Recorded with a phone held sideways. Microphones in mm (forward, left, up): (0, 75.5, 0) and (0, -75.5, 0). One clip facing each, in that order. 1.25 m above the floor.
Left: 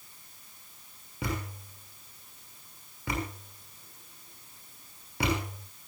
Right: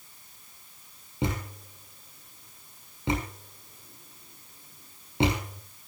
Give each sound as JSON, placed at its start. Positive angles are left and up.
{"t": 1.2, "sound": "a thud", "side_deg": -25, "distance_m": 7.0}